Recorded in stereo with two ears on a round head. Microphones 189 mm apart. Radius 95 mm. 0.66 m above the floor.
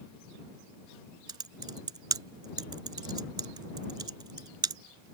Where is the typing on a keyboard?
20° right (ahead or behind).